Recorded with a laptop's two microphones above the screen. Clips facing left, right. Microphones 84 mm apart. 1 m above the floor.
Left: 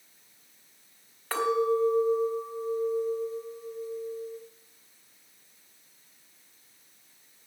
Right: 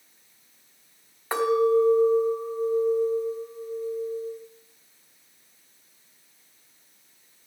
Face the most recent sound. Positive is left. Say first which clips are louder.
# right 5 dB
turn(degrees=-15)  # may be behind; listen again after turning